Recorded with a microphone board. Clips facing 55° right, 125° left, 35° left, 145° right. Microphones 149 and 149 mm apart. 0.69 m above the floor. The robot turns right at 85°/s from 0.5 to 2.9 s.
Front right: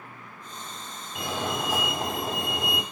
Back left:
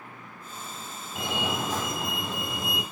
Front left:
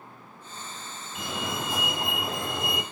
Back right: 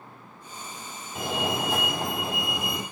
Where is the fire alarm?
175° left, 3 m; by 2.8 s 40° right, 3 m.